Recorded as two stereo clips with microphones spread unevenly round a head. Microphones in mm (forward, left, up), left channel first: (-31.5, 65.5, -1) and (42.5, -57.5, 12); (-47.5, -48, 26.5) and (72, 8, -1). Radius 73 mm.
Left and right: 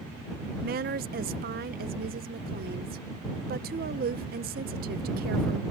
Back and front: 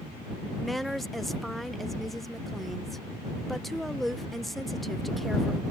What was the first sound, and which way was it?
A woman speaking, 60° right.